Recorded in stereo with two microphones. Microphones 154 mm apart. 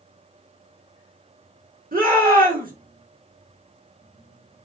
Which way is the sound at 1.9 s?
70° right (ahead or behind).